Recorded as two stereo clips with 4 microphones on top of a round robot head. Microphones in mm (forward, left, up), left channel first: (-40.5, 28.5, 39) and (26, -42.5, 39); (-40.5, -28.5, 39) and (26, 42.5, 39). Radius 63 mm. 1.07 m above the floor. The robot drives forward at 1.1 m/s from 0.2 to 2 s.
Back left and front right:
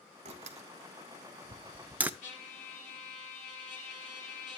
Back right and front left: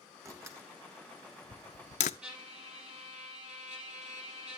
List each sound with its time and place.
0.2 s a door slam: 20° right, 1.7 m; by 2.1 s 120° right, 0.6 m
2.2 s a trumpet: 130° left, 6 m